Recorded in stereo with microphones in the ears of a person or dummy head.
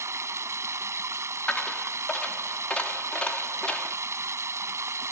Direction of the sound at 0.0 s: 20° right (ahead or behind).